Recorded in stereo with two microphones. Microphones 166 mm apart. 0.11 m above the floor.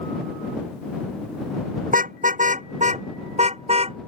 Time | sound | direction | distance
1.9 | a car horn | 60° right (ahead or behind) | ?